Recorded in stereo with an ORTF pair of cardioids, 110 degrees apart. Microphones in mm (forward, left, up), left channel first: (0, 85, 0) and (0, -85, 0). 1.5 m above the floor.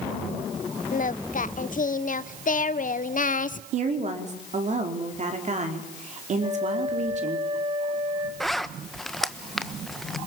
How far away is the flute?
About 4 m.